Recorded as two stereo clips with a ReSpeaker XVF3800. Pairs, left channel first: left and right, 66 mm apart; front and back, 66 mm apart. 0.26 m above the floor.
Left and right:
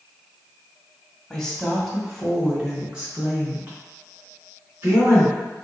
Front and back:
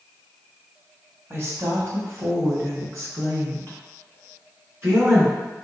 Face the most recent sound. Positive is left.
turn(degrees=-140)